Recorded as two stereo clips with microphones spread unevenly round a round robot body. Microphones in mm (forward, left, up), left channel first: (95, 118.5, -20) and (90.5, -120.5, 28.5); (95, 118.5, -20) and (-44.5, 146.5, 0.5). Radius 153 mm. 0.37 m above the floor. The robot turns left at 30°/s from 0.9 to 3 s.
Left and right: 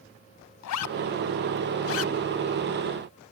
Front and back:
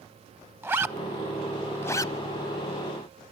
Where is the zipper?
90° left, 0.6 m; by 2.1 s 55° left, 0.6 m.